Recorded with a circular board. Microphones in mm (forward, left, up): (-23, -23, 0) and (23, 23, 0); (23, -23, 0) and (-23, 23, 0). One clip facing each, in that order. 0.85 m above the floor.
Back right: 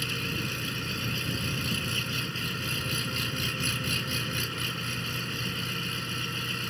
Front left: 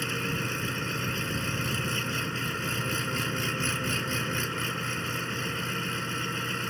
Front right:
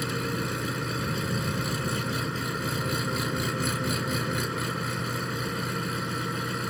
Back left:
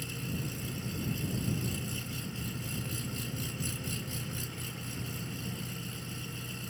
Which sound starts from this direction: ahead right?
An engine running, at 0.0 s.